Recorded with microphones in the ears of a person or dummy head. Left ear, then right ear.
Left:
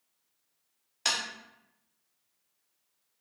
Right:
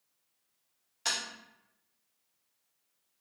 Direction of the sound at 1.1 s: 20° left (ahead or behind).